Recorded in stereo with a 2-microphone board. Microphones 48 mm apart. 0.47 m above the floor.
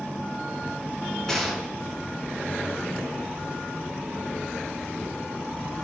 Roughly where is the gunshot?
Centre.